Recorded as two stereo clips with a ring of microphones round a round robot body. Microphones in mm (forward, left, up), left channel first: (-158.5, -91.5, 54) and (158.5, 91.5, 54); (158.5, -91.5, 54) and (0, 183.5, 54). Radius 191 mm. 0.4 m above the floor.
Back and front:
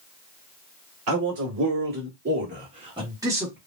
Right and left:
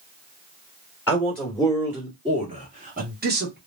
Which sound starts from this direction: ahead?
A man speaking, at 1.1 s.